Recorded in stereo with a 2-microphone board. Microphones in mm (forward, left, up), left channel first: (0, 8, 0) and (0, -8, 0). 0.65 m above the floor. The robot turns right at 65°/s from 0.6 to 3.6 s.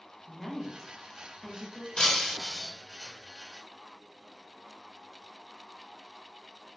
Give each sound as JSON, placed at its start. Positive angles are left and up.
{"t": 0.2, "sound": "a woman speaking", "side_deg": 0, "distance_m": 0.9}
{"t": 2.0, "sound": "breaking glass", "azimuth_deg": 130, "distance_m": 1.4}